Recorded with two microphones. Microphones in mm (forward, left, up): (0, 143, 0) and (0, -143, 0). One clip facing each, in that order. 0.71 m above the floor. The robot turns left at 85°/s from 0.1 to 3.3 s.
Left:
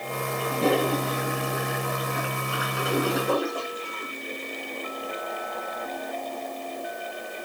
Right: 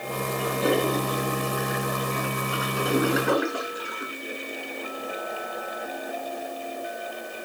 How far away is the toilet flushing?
About 7.5 m.